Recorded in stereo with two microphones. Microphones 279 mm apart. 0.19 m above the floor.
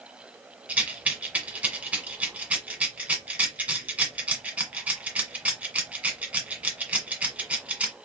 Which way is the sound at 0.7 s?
5° right (ahead or behind).